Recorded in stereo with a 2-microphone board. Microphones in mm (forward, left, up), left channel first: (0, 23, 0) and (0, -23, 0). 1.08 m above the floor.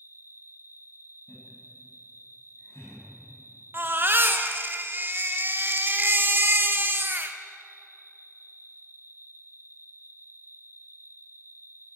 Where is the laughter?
65° left (ahead or behind), 10 m.